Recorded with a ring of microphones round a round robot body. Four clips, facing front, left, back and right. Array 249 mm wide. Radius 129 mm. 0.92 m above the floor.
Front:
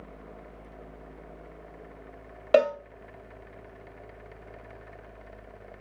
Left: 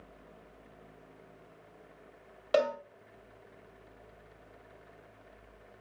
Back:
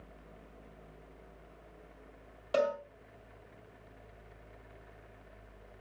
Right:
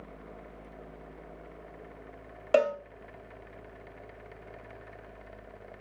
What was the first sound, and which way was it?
A cowbell, 15° right.